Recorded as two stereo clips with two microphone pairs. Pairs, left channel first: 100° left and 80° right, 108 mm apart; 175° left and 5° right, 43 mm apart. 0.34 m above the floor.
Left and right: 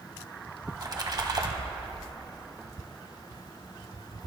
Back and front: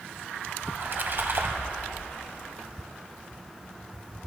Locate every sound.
0.7 s a splash: 35° right, 1.1 m